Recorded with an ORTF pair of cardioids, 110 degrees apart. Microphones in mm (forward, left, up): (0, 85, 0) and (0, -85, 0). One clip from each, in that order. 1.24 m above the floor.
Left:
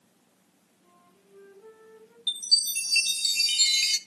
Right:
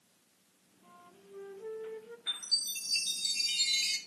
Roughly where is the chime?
Ahead left.